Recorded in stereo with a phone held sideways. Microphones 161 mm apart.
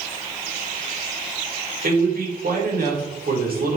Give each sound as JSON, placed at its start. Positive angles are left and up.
{"t": 1.8, "sound": "a man speaking", "side_deg": -70, "distance_m": 3.0}